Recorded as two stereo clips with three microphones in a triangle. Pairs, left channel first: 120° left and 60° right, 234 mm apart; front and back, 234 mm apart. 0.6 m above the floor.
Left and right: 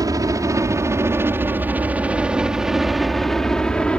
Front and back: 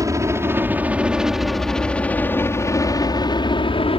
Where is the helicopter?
120° right; by 4.0 s 40° left.